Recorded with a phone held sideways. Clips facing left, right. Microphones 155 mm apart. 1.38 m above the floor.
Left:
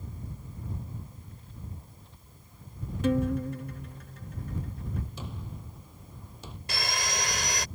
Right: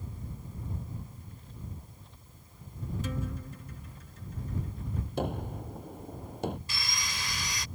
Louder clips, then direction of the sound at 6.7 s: Left 7 dB; 65° left (ahead or behind).